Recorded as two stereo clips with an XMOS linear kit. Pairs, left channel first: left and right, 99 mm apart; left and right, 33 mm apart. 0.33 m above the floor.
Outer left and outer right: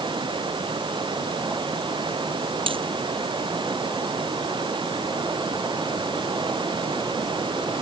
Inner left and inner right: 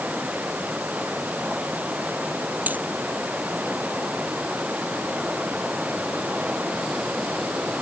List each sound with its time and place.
0.0 s running water: 55° right (ahead or behind)
2.7 s a dropped coin: 65° right (ahead or behind)